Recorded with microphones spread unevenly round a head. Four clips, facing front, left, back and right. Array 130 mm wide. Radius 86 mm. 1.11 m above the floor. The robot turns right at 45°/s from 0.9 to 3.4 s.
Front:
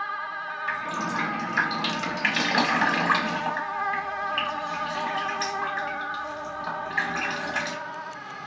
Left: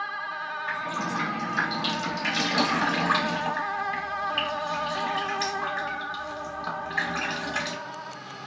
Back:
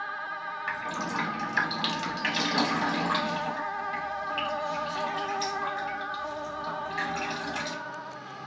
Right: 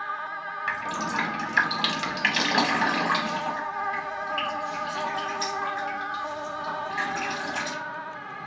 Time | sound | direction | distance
0.7 | dripping | 95° right | 1.0 m